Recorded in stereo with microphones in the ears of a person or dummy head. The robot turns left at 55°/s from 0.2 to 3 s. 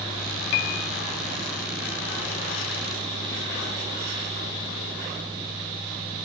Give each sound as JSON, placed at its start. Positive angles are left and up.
{"t": 0.5, "sound": "a piano", "side_deg": 65}